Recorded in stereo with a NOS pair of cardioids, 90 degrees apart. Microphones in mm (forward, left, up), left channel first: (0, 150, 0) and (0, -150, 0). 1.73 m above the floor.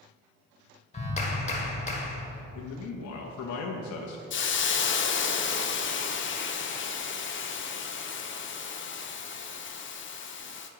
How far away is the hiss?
About 0.6 m.